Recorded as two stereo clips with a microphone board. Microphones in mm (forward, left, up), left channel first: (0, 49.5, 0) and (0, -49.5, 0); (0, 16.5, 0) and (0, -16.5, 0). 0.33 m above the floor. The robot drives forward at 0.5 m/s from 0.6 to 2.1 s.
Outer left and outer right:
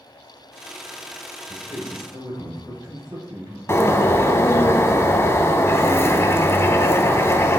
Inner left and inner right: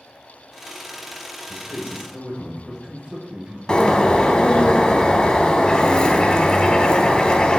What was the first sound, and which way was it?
A man speaking, 45° right (ahead or behind).